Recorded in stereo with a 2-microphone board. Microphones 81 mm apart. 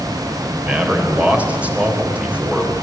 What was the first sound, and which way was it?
A man speaking, 15° right (ahead or behind).